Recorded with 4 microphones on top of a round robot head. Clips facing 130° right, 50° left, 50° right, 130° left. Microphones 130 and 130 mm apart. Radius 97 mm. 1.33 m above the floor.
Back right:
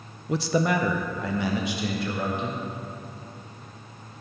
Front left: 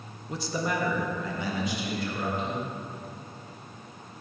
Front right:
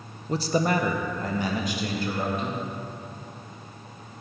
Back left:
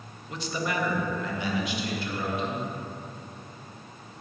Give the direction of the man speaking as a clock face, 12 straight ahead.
4 o'clock.